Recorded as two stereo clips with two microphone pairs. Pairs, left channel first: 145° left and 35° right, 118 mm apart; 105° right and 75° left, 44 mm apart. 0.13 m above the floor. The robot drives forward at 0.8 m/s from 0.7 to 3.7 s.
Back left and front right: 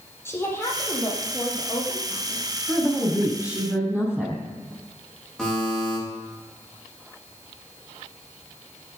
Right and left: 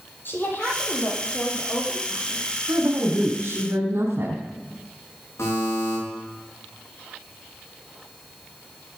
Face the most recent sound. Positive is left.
turn(degrees=-130)